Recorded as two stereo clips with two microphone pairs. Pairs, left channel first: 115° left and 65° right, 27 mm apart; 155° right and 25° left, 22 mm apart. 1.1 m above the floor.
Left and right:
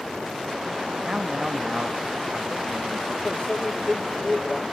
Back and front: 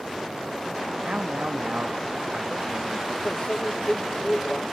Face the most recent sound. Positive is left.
turn(degrees=165)